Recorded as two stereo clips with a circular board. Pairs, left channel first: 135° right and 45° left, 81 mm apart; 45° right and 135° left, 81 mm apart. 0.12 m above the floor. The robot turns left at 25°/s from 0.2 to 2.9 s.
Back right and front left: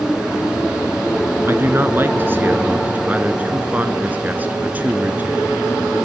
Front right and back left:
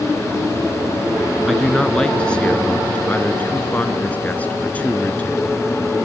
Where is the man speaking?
40° left, 1.2 m; by 5.7 s 5° left, 1.2 m.